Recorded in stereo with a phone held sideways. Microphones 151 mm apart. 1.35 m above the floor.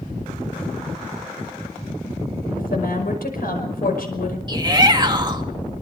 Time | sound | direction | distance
2.6 | a woman speaking | 75° left (ahead or behind) | 5.5 m
4.5 | a shout | 30° right (ahead or behind) | 2 m